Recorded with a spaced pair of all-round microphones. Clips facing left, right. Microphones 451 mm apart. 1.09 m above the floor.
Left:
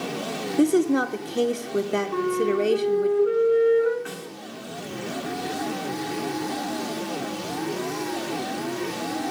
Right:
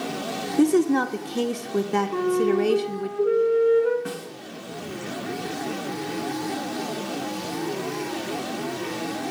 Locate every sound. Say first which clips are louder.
0.6 s a woman speaking: right 1 dB; 10° right (ahead or behind), 0.5 m
2.1 s a flute: right 3 dB; 15° left (ahead or behind), 1.7 m
4.0 s a snare drum: right 3 dB; 55° right (ahead or behind), 1.7 m